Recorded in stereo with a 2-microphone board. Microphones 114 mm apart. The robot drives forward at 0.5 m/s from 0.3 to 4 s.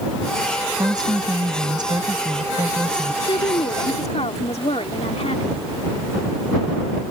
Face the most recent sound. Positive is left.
turn(degrees=65)  # may be behind; listen again after turning